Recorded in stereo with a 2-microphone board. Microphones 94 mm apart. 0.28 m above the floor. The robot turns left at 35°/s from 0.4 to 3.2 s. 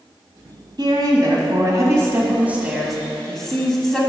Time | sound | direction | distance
0.8 | a woman speaking | 100° right | 1.8 m